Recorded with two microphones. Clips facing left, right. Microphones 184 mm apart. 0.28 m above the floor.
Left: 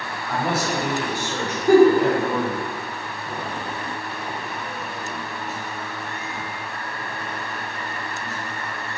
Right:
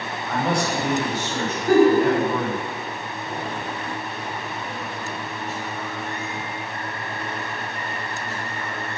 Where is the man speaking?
Centre (ahead or behind), 1.3 m; by 2.6 s 20° left (ahead or behind), 2 m.